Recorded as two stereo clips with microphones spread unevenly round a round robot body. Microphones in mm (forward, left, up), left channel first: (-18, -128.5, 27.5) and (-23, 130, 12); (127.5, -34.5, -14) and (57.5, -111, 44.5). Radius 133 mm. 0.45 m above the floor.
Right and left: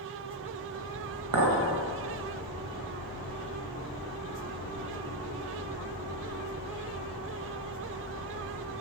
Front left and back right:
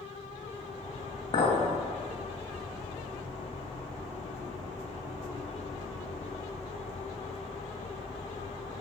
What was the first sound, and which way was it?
A clink, 80° left.